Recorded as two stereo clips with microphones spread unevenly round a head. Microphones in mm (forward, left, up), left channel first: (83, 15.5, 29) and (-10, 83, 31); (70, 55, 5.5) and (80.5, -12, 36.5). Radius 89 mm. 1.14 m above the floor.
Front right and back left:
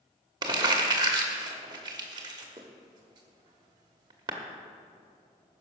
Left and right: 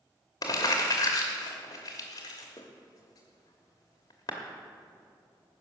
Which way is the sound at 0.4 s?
160° left.